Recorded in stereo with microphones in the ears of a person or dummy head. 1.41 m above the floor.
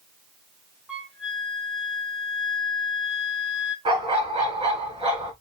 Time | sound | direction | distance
0.9 | a flute | 5° right (ahead or behind) | 1.8 m
3.9 | a dog barking | 30° right (ahead or behind) | 3.5 m